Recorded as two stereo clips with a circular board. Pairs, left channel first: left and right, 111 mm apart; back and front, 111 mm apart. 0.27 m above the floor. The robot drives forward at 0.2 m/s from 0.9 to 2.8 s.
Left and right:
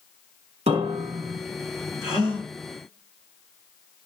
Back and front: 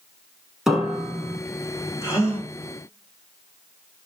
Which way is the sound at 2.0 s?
125° right.